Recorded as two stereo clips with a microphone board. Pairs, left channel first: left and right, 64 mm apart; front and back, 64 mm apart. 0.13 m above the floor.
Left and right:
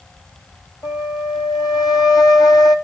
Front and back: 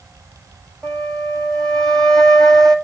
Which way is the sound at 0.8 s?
80° left.